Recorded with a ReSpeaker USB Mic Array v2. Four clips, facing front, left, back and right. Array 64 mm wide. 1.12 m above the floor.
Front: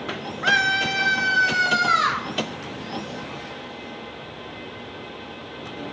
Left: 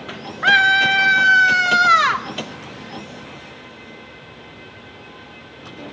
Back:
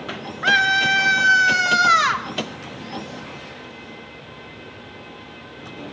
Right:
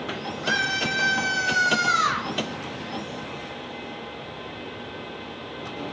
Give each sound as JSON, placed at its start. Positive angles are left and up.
{"t": 0.4, "sound": "a scream", "azimuth_deg": 100, "distance_m": 2.0}